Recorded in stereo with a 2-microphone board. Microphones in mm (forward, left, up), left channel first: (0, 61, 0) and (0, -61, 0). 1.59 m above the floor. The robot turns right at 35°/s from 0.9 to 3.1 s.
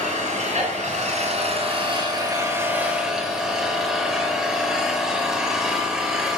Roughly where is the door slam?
No door slam in this recording.